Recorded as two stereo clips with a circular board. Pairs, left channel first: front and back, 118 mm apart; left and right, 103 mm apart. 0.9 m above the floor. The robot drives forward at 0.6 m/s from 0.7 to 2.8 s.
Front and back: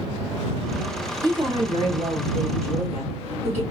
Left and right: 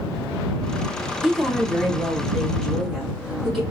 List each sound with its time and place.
1.2 s a woman speaking: 170° right, 0.7 m; by 3.6 s straight behind, 1.4 m